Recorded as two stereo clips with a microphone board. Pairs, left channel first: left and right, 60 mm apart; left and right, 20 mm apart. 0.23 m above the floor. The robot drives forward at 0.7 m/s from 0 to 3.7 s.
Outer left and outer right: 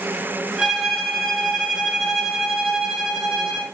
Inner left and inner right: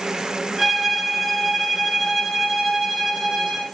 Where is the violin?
Centre (ahead or behind), 1.4 m.